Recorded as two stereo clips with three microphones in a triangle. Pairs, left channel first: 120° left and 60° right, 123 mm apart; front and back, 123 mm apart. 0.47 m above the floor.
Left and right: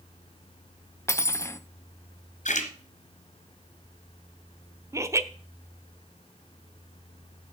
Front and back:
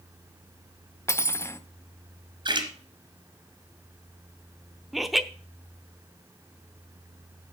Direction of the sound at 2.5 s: 130° left.